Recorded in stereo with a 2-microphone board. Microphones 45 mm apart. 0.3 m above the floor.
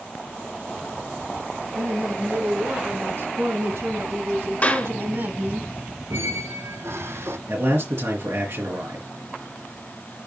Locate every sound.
1.8 s a woman speaking: 60° right (ahead or behind), 4.5 m; by 5.6 s 40° right (ahead or behind), 2.5 m
4.6 s a clap: 35° left (ahead or behind), 3 m
6.1 s a squeak: 75° right (ahead or behind), 0.9 m
7.5 s a man speaking: 70° right (ahead or behind), 4 m